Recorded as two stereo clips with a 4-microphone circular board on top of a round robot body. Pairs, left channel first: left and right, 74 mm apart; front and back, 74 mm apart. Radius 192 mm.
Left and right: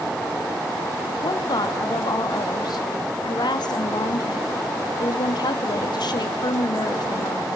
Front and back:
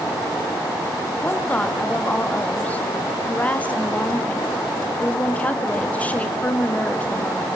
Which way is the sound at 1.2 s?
70° left.